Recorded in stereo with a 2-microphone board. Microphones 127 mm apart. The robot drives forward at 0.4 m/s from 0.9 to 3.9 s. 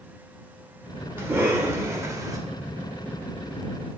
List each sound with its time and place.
1.2 s a cough: 20° right (ahead or behind), 1.7 m; by 2.4 s 25° right (ahead or behind), 1.2 m